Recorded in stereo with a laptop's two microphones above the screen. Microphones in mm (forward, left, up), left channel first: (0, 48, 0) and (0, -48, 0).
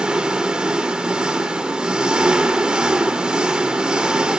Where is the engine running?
10° right (ahead or behind), 1.5 m.